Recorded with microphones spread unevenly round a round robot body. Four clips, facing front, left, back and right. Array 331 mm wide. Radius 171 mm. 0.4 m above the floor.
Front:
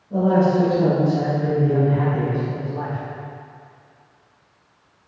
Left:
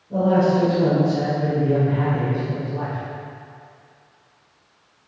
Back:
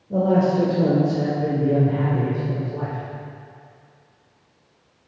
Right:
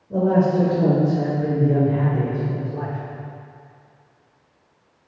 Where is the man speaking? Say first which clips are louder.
Even, front 1 dB; 165° right, 1.8 m.